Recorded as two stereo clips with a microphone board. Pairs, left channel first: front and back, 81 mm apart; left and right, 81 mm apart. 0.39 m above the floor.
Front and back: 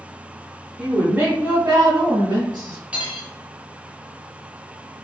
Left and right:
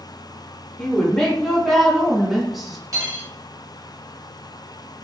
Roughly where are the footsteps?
I don't hear footsteps.